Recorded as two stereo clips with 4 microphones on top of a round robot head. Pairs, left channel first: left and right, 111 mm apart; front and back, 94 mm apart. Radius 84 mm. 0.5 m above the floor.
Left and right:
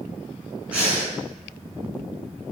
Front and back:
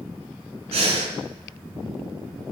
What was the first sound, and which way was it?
Breathing, 170° right.